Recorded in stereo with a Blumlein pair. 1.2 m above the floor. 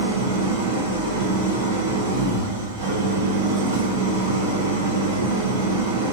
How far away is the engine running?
About 3 m.